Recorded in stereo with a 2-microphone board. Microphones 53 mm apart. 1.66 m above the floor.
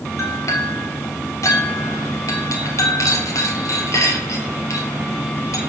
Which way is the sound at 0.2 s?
65° left (ahead or behind).